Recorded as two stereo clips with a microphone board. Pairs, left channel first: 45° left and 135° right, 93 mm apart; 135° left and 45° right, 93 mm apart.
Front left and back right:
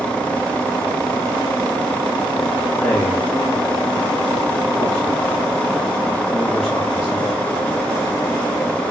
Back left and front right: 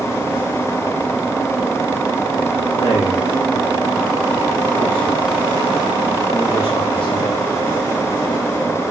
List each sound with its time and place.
2.7 s a man speaking: 135° left, 2.5 m